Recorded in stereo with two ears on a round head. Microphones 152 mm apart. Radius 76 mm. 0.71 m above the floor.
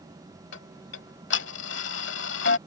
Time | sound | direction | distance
0.5 | ticking | 80° left | ?